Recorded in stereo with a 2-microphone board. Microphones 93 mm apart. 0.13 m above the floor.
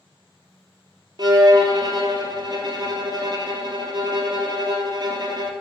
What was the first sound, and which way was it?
A violin, 50° right (ahead or behind).